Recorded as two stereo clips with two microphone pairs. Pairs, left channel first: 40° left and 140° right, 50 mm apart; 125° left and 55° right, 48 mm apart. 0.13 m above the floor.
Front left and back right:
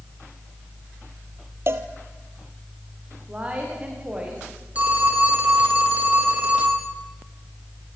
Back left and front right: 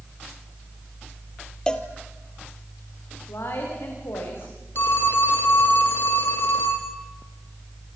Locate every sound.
1.7 s a cowbell: 165° right, 1.7 m
3.3 s a woman speaking: 155° left, 9.5 m
4.8 s a phone ringing: 165° left, 4 m